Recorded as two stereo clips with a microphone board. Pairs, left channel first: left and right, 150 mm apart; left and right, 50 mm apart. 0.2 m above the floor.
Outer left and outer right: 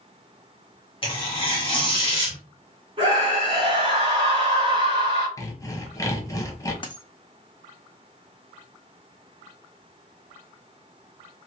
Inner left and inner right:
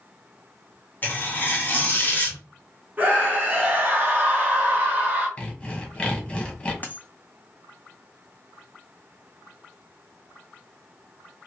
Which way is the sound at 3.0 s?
30° right (ahead or behind).